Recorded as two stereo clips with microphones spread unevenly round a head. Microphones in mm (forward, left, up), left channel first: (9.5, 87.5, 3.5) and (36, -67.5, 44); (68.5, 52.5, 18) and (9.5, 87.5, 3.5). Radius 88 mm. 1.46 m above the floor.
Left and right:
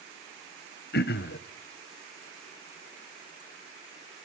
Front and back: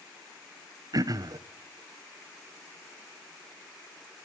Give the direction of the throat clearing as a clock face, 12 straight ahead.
8 o'clock.